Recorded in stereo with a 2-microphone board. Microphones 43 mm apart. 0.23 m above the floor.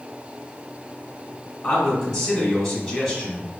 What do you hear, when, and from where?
1.6 s a man speaking: 5° left (ahead or behind), 1.3 m